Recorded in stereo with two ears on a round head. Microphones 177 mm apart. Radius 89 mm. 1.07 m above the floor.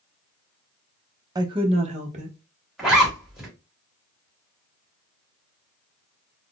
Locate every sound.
1.4 s a woman speaking: 20° right (ahead or behind), 0.5 m; by 2.4 s 40° right (ahead or behind), 1.0 m
2.8 s a zipper: 5° right (ahead or behind), 1.2 m